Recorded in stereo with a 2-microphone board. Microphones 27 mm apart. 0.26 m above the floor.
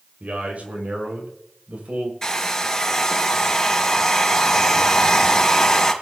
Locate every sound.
0.2 s a man speaking: 60° right (ahead or behind), 7 m
2.2 s a hair dryer: 25° left (ahead or behind), 3 m